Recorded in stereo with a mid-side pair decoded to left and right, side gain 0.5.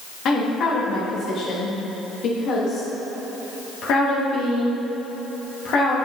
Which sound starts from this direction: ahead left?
A woman speaking, at 0.2 s.